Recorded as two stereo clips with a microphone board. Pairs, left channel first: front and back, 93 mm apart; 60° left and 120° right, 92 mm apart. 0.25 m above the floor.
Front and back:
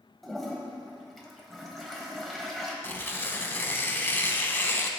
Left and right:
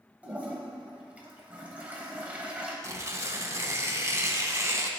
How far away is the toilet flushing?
About 1.0 m.